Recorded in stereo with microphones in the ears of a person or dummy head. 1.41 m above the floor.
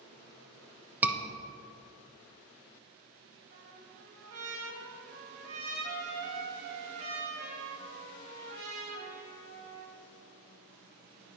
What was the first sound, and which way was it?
A scream, 5° right (ahead or behind).